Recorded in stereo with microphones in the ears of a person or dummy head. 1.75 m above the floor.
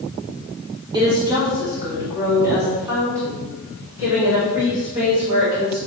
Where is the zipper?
No zipper in this recording.